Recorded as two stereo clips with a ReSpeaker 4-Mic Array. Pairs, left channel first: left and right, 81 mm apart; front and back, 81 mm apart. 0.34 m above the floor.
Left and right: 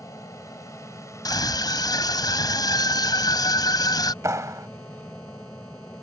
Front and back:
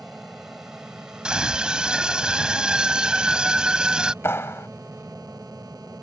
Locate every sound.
0.0 s an aircraft: 95° left; by 6.0 s 155° left
1.2 s a scream: 100° left
4.2 s a clap: 50° right